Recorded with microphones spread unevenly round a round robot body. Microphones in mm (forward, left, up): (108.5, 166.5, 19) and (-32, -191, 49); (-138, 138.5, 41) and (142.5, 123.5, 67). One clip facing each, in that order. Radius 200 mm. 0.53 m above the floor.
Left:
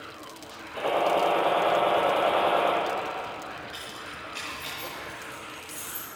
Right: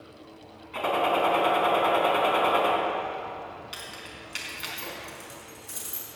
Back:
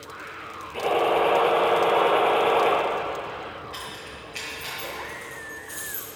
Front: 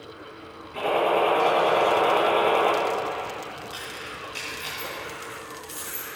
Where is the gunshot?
90° right, 3.5 m.